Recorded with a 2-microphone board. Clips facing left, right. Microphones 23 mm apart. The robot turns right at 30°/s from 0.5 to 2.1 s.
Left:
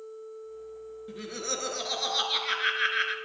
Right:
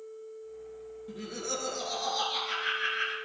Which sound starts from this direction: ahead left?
Laughter, at 1.1 s.